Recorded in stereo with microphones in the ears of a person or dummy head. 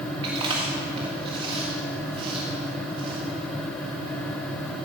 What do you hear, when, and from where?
0.2 s chewing: 30° right (ahead or behind), 1.6 m